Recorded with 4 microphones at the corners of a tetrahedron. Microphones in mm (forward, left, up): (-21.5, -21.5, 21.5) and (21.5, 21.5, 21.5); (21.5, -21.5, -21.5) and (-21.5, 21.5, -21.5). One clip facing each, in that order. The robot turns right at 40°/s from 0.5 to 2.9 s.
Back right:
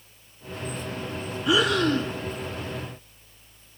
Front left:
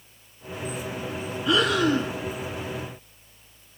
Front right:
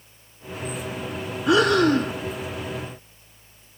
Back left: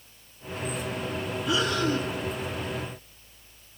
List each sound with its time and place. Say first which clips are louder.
1.5 s breathing: even, front right 9 dB; 55° right, 0.6 m; by 2.1 s 25° right, 0.6 m